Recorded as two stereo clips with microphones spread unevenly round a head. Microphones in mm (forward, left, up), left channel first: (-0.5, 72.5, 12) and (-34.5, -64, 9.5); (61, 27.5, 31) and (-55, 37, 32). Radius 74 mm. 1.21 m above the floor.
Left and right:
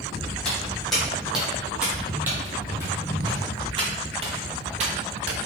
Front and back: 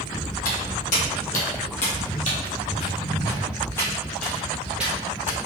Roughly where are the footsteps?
Ahead.